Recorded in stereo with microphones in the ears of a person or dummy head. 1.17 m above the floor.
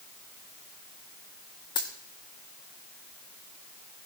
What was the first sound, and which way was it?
A dropped coin, 20° left (ahead or behind).